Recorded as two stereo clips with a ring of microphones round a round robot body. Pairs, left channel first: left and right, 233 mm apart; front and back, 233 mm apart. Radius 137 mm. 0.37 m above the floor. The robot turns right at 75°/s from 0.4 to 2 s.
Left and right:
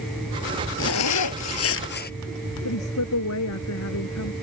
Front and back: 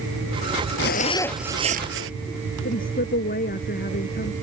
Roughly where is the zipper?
Ahead left.